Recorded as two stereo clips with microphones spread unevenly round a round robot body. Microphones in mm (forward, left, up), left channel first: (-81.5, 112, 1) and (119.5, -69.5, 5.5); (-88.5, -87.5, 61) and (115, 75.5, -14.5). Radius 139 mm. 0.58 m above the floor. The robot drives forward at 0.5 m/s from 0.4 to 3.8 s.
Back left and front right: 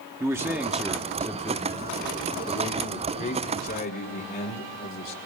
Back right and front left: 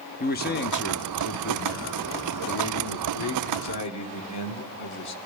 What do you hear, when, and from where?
0.2 s a man speaking: 110° right, 1.2 m; by 5.2 s 170° right, 2 m